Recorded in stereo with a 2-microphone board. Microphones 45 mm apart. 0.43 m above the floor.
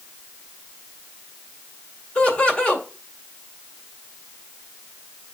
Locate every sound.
2.1 s laughter: 25° left (ahead or behind), 2 m